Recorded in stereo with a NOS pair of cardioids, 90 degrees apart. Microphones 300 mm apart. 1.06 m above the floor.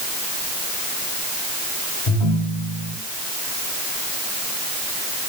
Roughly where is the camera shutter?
No camera shutter in this recording.